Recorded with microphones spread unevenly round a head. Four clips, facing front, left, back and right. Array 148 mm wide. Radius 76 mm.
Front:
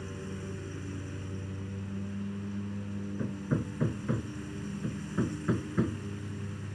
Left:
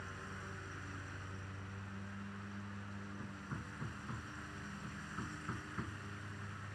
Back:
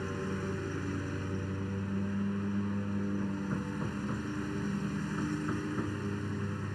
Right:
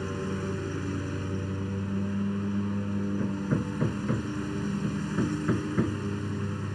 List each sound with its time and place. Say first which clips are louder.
0.0 s a lawn mower: right 17 dB, back 5 dB; 105° right
3.2 s hammering: right 19 dB, front 1 dB; 55° right